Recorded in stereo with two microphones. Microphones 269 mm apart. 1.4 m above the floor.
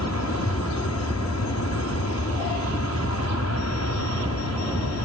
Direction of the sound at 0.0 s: 70° left (ahead or behind).